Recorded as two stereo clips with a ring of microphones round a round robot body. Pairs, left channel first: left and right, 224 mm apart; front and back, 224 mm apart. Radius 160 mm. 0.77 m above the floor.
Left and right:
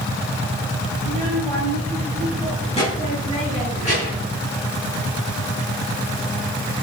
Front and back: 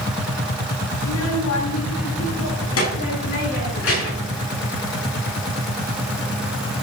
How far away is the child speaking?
About 3 m.